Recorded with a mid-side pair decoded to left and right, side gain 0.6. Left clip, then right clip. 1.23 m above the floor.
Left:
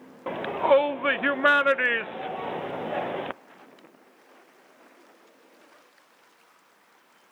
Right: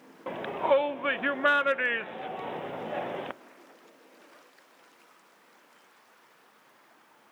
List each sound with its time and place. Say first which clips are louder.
0.3 s a shout: left 4 dB; 20° left, 0.7 m